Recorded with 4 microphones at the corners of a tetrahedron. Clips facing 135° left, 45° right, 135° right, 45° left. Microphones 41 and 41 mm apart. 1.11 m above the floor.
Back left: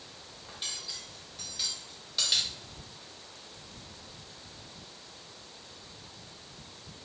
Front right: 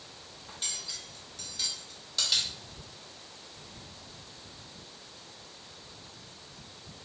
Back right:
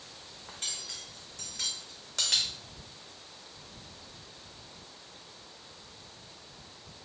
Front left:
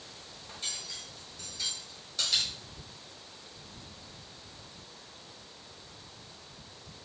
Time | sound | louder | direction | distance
0.5 | cutlery clinking | even, even | 140° right | 1.0 m